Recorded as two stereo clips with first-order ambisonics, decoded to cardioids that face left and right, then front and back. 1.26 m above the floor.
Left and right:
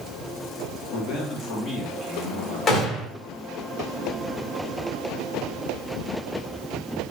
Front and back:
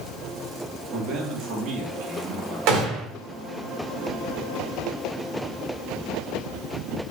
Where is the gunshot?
150° left, 2.5 m.